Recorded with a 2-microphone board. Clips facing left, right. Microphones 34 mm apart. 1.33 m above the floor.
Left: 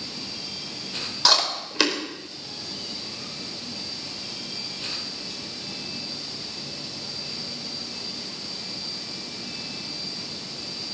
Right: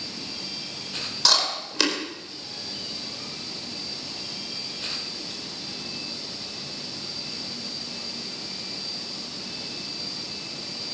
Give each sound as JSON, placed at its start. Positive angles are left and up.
{"t": 1.2, "sound": "chewing", "side_deg": 10, "distance_m": 4.5}